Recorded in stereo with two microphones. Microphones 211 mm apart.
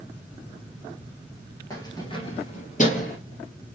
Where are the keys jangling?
15° left (ahead or behind), 1.6 m; by 3.2 s 45° left (ahead or behind), 1.8 m.